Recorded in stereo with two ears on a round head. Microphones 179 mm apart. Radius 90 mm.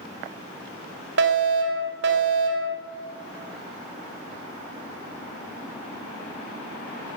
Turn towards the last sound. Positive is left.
turn(degrees=-60)  # may be behind; listen again after turning